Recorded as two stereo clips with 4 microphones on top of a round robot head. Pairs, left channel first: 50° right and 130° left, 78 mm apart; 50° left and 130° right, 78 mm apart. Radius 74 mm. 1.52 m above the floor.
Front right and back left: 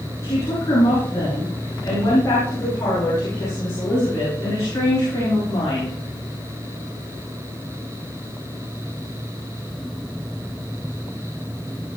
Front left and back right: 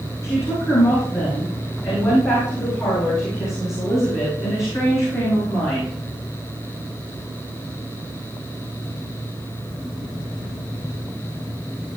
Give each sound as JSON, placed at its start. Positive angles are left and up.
{"t": 0.2, "sound": "a woman speaking", "azimuth_deg": 0, "distance_m": 9.0}